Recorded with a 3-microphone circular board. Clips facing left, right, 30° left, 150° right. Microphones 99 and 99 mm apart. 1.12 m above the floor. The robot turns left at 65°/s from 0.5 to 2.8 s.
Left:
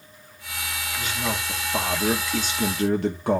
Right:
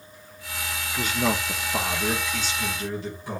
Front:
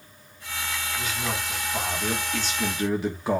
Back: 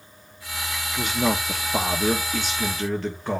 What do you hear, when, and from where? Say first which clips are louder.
1.0 s a man speaking: right 4 dB, back 10 dB; 135° right, 1.4 m; by 3.4 s 110° left, 1.4 m